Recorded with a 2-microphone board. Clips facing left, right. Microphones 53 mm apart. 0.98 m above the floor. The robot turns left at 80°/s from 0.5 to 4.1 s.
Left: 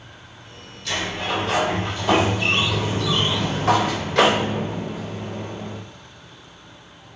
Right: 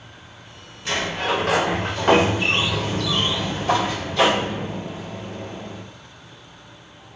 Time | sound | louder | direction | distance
0.8 | a sliding door | right 2 dB | 30° right | 0.5 m